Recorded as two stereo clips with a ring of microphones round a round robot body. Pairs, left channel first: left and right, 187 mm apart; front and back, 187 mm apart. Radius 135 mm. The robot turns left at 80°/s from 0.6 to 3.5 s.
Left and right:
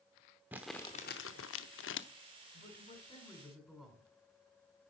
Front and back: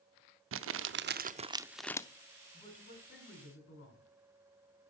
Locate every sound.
0.5 s crumpling: 175° right, 0.7 m; by 2.1 s 70° left, 0.7 m
2.5 s a man speaking: 75° left, 7 m; by 4.0 s 5° right, 7 m